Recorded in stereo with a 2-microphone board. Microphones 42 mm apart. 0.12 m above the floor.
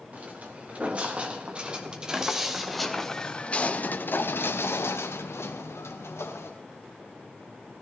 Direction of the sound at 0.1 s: 35° right (ahead or behind).